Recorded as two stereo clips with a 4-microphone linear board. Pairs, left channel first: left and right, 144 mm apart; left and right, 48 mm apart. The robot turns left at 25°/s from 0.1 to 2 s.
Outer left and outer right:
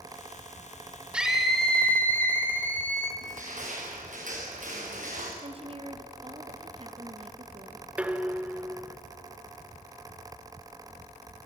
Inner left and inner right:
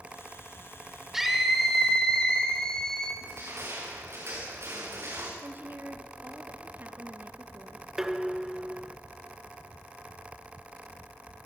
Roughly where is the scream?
Centre.